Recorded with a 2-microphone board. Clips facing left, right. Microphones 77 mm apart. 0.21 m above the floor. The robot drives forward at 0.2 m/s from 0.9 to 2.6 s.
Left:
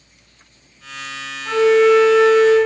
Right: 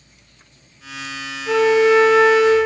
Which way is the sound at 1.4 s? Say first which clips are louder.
Left 2 dB; 40° left (ahead or behind).